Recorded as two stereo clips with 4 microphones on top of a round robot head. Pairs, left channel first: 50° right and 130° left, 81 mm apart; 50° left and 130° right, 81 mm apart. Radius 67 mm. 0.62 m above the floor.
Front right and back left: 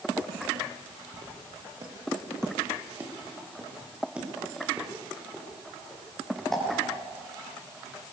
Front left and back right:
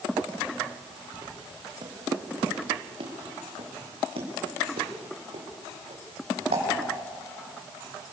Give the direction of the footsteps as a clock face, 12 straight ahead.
6 o'clock.